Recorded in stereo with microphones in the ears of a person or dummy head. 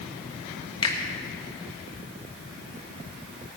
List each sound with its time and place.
0.8 s a finger snap: 20° left (ahead or behind), 1.2 m